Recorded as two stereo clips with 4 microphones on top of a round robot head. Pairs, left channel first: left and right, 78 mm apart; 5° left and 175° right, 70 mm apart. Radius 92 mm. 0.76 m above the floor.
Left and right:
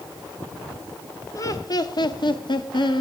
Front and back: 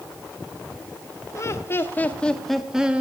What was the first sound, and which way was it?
Laughter, 45° left.